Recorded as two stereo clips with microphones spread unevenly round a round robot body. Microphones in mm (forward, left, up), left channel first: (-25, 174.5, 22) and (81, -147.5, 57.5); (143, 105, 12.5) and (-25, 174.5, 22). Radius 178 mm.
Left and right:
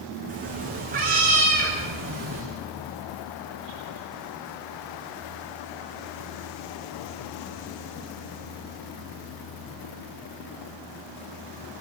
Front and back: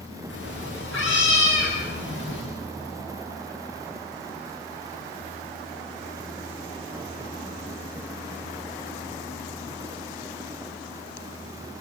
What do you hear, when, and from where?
0.3 s a cat meowing: 140° right, 9 m; by 2.4 s 135° right, 10 m